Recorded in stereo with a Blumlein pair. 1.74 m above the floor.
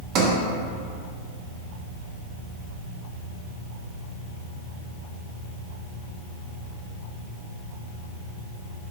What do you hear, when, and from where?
0.1 s a sliding door: 30° right, 0.6 m